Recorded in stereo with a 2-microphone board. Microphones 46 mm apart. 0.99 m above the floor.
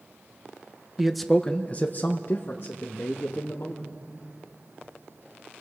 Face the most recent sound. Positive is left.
turn(degrees=60)  # may be behind; listen again after turning